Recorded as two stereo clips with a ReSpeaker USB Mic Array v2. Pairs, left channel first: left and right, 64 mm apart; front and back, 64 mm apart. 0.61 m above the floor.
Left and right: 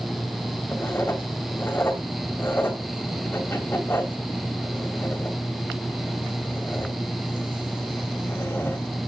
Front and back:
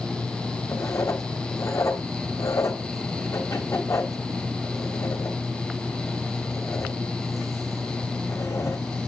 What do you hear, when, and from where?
0.7 s writing: 35° left, 3 m